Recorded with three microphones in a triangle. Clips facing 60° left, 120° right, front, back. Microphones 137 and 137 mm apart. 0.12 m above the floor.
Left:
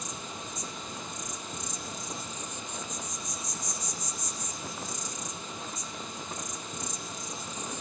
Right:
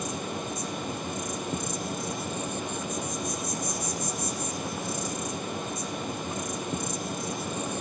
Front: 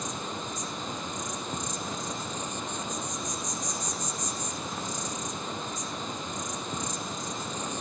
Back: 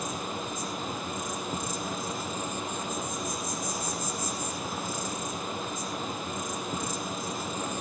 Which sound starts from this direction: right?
An insect, at 0.0 s.